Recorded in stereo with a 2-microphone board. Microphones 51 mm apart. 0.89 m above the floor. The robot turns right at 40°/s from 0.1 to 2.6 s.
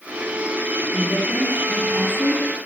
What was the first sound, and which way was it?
A woman speaking, 70° left.